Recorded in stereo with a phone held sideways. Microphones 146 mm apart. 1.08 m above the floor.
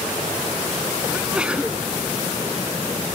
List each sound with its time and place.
1.1 s a sneeze: 5° right (ahead or behind)